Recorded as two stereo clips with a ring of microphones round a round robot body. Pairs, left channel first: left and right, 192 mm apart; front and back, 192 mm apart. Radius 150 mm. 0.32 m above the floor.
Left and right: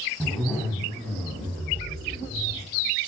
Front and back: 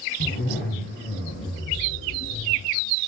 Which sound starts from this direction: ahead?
A zipper, at 0.2 s.